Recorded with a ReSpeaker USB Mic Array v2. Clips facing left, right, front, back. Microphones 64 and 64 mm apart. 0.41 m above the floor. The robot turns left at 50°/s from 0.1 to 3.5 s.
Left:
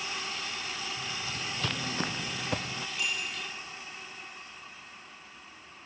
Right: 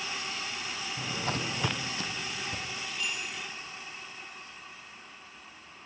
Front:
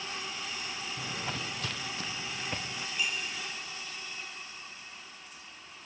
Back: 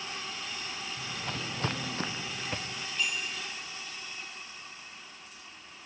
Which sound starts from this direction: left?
A bicycle bell, at 3.0 s.